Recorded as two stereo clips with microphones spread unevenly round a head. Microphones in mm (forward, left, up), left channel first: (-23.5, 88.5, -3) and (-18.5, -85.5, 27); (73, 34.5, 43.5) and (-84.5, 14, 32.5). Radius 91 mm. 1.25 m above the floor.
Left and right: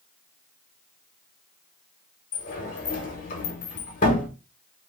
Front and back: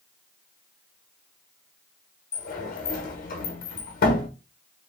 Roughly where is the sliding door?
Ahead left.